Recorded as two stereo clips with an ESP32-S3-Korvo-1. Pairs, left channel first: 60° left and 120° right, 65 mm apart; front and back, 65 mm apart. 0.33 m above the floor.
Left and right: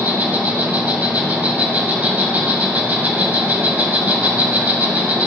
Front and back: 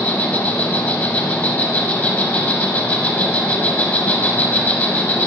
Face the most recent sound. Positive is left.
turn(degrees=-60)